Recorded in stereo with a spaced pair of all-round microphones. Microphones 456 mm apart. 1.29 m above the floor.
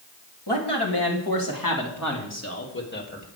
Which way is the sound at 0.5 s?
60° left (ahead or behind).